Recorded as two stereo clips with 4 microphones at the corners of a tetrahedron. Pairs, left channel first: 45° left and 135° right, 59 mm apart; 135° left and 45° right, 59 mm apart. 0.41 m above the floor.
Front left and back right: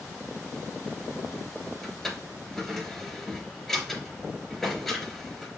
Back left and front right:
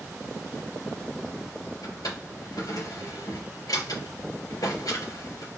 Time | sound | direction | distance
1.8 | a drawer | 130° left | 4 m